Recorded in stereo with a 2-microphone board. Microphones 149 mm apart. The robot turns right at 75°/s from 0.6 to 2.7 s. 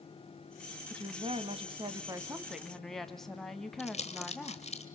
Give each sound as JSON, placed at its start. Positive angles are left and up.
{"t": 0.9, "sound": "a woman speaking", "azimuth_deg": -130, "distance_m": 1.2}
{"t": 3.8, "sound": "crumpling", "side_deg": 50, "distance_m": 1.6}